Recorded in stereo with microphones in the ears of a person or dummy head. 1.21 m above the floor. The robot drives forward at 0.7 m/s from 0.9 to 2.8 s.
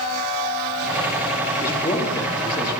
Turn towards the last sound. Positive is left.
turn(degrees=20)  # may be behind; listen again after turning